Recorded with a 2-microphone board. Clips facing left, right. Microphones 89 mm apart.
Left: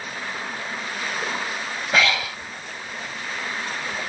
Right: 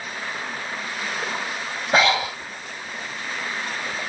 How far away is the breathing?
About 0.7 m.